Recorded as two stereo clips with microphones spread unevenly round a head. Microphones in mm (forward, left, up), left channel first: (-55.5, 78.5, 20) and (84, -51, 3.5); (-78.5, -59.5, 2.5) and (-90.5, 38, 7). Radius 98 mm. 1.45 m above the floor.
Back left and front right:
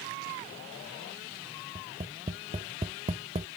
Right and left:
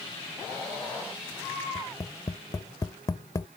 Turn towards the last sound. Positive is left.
turn(degrees=-85)